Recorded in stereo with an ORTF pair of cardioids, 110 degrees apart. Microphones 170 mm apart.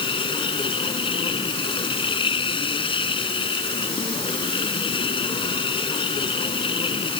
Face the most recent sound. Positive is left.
turn(degrees=30)